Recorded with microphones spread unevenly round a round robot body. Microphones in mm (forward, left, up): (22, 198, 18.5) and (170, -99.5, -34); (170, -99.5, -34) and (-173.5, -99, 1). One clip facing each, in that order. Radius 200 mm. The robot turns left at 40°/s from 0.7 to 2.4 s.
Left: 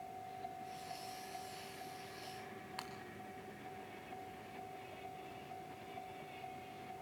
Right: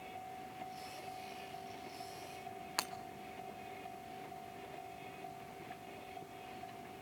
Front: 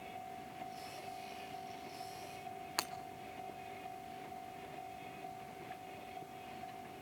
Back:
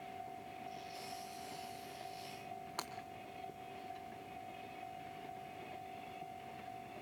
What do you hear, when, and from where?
2.8 s breaking glass: 40° right, 1.4 m